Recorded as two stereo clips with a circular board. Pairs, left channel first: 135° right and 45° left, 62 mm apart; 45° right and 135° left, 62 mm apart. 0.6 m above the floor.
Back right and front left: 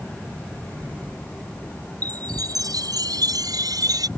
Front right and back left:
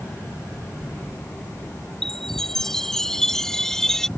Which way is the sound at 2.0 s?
35° left.